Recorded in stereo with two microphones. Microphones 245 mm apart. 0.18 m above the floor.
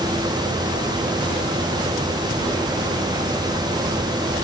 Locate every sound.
Only background noise.